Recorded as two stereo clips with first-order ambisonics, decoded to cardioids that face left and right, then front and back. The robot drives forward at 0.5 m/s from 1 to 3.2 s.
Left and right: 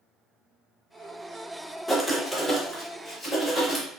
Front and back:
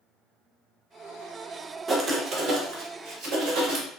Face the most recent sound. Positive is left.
turn(degrees=180)